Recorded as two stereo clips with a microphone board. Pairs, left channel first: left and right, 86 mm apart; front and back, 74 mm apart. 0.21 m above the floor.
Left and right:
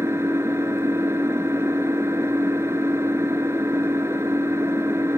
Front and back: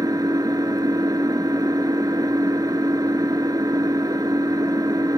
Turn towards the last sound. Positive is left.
turn(degrees=-150)